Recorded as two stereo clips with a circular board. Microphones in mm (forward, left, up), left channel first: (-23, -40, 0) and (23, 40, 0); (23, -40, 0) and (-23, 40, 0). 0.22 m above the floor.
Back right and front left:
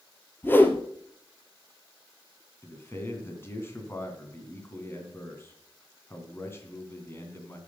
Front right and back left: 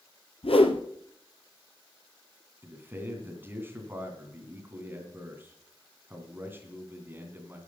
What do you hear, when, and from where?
0.4 s a whoosh: 50° right, 1.2 m
2.6 s a man speaking: straight behind, 2.5 m